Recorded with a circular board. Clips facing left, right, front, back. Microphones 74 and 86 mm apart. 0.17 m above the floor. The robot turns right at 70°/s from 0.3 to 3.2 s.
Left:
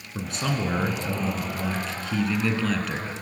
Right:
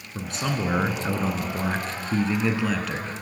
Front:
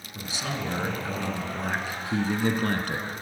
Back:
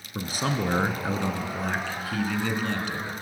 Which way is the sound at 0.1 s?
Straight behind.